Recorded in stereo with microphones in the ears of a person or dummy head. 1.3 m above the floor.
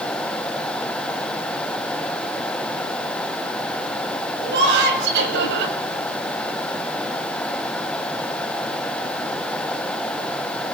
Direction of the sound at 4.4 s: 60° right (ahead or behind).